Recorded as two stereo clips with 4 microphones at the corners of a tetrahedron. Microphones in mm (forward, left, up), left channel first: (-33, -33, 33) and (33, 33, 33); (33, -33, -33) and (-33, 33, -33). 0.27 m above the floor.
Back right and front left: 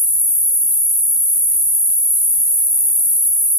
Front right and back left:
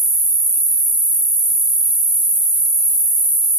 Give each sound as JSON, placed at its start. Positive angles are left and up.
{"t": 0.0, "sound": "an insect", "azimuth_deg": 130, "distance_m": 1.5}